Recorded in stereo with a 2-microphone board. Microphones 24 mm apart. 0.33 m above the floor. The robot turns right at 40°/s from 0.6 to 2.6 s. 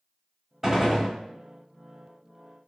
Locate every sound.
0.6 s a gunshot: 15° right (ahead or behind), 0.9 m; by 1.1 s 5° right (ahead or behind), 0.9 m